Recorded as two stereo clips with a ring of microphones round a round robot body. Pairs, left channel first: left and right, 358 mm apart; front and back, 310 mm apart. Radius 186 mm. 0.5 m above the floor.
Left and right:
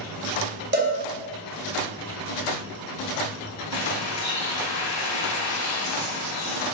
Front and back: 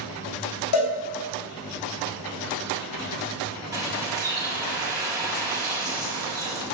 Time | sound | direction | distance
0.7 | a cowbell | 30° right | 3 m
3.7 | a bird | 100° left | 3 m